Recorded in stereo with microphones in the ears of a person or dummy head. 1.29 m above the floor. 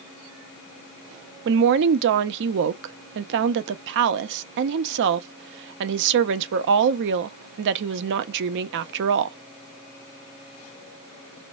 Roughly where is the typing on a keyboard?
No typing on a keyboard in this recording.